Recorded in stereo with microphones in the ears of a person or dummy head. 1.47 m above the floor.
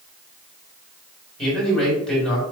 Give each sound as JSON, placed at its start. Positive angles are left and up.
{"t": 1.4, "sound": "a man speaking", "side_deg": 5, "distance_m": 4.0}